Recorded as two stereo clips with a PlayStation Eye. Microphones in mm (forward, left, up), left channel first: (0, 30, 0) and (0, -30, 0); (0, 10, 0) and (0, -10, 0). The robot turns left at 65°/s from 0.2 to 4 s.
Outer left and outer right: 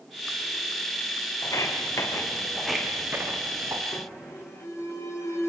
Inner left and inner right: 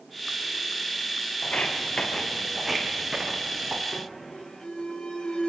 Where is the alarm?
70° left (ahead or behind), 3.5 m; by 5.5 s 65° left (ahead or behind), 3.5 m.